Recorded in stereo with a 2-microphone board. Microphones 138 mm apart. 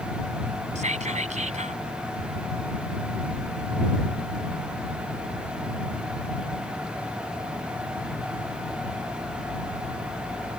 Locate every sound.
0.8 s whispering: 60° right (ahead or behind)